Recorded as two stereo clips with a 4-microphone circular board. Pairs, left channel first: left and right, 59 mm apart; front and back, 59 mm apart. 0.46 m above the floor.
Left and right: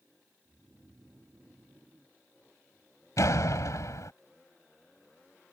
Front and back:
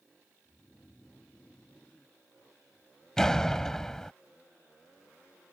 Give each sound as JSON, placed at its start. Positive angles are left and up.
{"t": 0.5, "sound": "snoring", "azimuth_deg": -70}
{"t": 3.2, "sound": "a door slam", "azimuth_deg": 80}